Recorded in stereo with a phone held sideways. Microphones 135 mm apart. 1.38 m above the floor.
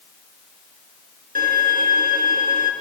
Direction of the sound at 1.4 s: 85° right.